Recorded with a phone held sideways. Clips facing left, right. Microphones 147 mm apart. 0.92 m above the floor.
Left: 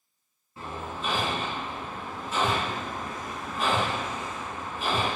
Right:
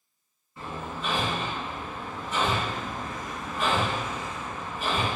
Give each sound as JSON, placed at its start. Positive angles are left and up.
{"t": 0.6, "sound": "hammering", "side_deg": 25, "distance_m": 1.7}